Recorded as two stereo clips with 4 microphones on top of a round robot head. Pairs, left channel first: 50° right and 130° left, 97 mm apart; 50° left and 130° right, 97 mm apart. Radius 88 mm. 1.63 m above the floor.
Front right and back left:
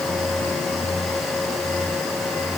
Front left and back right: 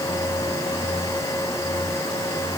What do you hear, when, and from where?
Only background noise.